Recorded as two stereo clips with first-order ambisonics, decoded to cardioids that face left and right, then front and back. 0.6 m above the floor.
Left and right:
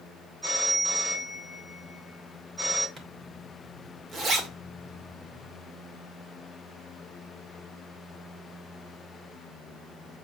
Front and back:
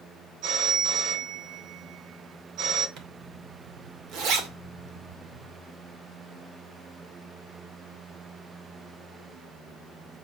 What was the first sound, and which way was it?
A phone ringing, 170° right.